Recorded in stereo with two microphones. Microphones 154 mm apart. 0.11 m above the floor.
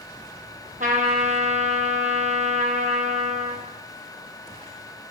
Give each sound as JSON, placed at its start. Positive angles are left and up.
{"t": 0.8, "sound": "a trumpet", "side_deg": -60, "distance_m": 0.6}